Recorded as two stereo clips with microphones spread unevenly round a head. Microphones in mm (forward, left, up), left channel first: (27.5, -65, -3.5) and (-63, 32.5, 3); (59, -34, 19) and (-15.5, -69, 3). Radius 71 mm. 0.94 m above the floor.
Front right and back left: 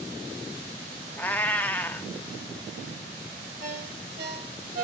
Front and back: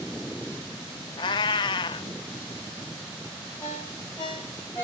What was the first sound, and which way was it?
A cat meowing, 35° left.